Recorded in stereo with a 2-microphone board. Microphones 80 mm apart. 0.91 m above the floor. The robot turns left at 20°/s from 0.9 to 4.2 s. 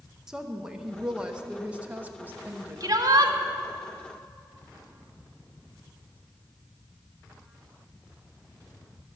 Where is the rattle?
I don't hear a rattle.